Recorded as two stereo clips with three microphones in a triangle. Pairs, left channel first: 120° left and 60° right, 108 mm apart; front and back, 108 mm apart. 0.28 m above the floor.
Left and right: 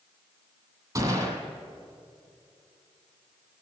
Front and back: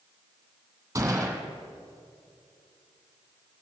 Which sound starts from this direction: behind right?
A gunshot, at 0.9 s.